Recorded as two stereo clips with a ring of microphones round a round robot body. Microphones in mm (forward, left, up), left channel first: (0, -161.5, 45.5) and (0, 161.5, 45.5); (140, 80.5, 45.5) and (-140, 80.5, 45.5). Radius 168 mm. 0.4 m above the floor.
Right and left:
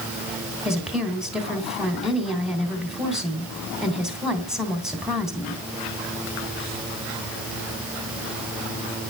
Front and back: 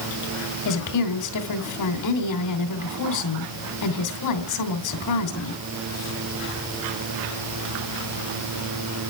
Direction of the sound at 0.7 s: Straight ahead.